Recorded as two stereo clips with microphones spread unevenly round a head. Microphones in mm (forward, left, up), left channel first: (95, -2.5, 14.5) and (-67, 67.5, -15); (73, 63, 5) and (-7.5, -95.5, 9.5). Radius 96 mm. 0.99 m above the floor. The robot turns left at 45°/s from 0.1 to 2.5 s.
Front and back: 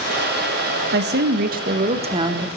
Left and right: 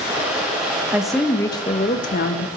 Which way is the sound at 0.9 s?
160° left.